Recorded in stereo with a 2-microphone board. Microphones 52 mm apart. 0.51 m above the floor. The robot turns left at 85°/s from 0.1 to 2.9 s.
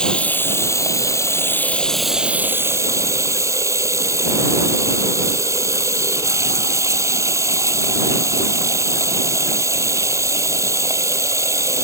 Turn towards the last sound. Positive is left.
turn(degrees=-75)